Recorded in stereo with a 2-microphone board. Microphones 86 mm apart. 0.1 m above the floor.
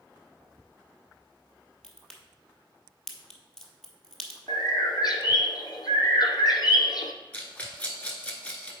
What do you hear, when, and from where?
1.8 s a crack: 5° left (ahead or behind), 1.3 m
4.5 s a bird: 55° left (ahead or behind), 0.8 m
7.3 s a rattle: 15° left (ahead or behind), 1.1 m